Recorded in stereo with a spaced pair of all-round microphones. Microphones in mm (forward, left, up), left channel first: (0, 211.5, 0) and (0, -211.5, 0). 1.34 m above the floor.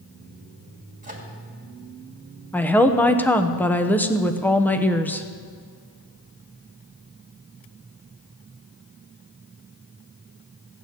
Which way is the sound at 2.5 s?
5° left (ahead or behind).